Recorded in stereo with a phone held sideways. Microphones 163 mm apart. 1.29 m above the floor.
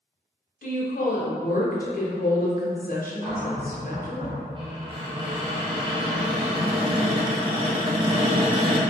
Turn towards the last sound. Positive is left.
turn(degrees=-30)  # may be behind; listen again after turning